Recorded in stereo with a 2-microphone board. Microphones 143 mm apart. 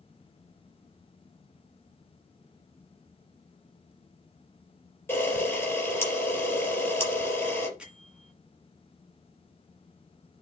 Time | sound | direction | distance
5.1 | a camera shutter | 15° left (ahead or behind) | 4 m
7.8 | a bell | 5° right (ahead or behind) | 2 m